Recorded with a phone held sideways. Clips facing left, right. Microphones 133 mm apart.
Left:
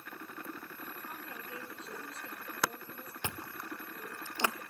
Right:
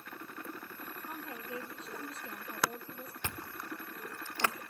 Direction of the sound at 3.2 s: 15° left (ahead or behind).